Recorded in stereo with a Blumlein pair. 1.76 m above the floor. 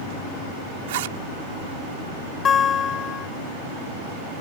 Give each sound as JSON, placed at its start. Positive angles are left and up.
{"t": 0.9, "sound": "a zipper", "azimuth_deg": -55}
{"t": 2.5, "sound": "a guitar", "azimuth_deg": 25}